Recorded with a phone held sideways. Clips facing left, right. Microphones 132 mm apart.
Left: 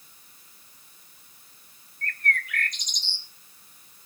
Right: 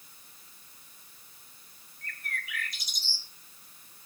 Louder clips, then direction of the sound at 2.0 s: Left 10 dB; 5° right (ahead or behind).